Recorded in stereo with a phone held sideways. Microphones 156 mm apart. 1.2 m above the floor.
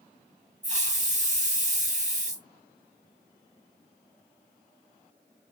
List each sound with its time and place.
0.6 s a hiss: 45° right (ahead or behind), 1.2 m